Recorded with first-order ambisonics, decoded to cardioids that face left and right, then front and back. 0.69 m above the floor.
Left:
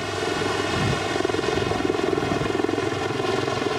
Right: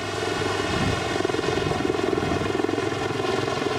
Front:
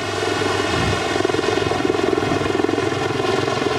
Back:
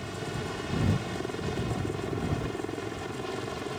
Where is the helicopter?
5° left.